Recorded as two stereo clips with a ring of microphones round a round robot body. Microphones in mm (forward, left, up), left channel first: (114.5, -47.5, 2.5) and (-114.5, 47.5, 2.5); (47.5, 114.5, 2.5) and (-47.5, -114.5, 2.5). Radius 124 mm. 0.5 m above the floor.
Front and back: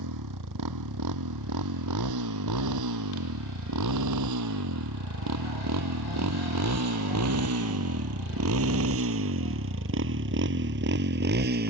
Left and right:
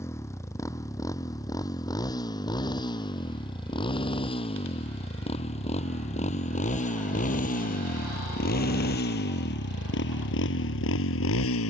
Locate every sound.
0.0 s a motorcycle: 145° left; by 11.7 s 105° left